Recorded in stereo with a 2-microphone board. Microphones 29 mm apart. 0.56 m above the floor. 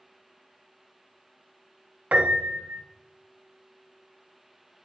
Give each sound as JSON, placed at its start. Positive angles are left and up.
{"t": 2.1, "sound": "a piano", "side_deg": -65, "distance_m": 0.7}